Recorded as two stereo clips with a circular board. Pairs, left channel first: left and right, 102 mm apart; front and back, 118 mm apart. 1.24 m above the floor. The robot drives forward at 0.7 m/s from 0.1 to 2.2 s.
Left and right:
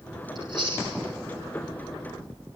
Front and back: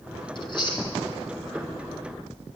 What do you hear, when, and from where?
0.3 s chewing: 45° right, 5 m; by 0.9 s 50° right, 4.5 m